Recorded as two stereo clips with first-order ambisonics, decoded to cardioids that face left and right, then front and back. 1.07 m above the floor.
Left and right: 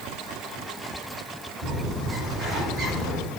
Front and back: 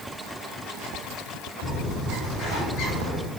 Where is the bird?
40° right, 4.5 m.